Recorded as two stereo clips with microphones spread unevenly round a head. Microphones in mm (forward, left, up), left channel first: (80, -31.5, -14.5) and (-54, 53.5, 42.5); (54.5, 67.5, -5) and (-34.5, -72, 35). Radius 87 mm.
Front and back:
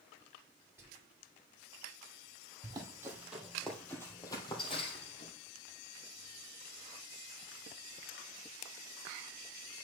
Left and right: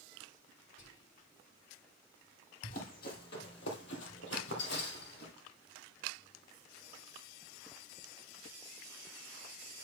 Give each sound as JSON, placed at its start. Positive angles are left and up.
{"t": 0.8, "sound": "whispering", "azimuth_deg": 70, "distance_m": 4.0}
{"t": 2.6, "sound": "running footsteps", "azimuth_deg": 105, "distance_m": 2.5}